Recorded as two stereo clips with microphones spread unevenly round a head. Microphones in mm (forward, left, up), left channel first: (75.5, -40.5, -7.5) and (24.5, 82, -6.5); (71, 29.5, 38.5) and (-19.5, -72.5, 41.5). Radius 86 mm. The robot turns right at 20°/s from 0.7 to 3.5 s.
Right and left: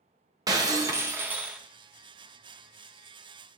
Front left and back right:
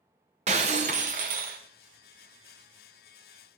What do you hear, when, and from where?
0.5 s breaking glass: straight behind, 0.7 m; by 1.6 s 165° right, 0.7 m